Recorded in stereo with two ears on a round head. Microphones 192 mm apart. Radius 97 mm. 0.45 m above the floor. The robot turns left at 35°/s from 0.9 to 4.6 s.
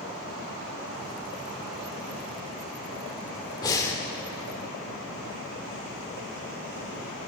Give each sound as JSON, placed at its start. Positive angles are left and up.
{"t": 3.6, "sound": "breathing", "side_deg": 20, "distance_m": 1.4}